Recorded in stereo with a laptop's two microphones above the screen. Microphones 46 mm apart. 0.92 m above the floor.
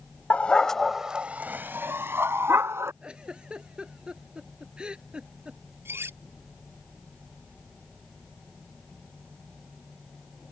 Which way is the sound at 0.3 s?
30° left (ahead or behind).